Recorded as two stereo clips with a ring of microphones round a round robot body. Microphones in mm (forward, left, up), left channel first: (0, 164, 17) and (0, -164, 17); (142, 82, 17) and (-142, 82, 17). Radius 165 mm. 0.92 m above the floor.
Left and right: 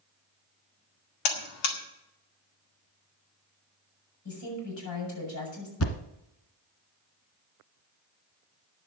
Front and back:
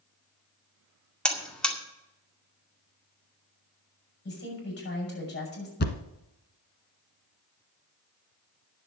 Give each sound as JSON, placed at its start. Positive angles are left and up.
{"t": 1.2, "sound": "a buzzer", "azimuth_deg": 85, "distance_m": 2.0}
{"t": 4.2, "sound": "a woman speaking", "azimuth_deg": 50, "distance_m": 7.5}
{"t": 5.8, "sound": "a thud", "azimuth_deg": 50, "distance_m": 1.4}